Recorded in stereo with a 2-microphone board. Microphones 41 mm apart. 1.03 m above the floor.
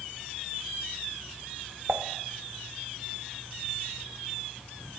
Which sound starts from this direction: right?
Dishes clattering, at 1.9 s.